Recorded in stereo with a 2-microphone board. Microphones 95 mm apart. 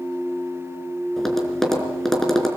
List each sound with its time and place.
1.2 s tapping: 5° left (ahead or behind), 4.5 m